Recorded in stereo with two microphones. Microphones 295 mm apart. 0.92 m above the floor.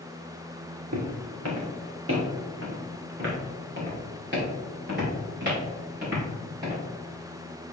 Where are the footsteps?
55° right (ahead or behind), 2 m; by 6.8 s 35° right (ahead or behind), 7 m.